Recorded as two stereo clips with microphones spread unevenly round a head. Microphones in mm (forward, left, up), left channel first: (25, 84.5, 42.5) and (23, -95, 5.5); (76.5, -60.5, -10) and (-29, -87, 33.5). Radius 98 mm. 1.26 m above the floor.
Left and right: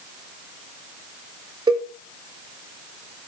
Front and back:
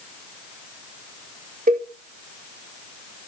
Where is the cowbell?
155° right, 1.6 m.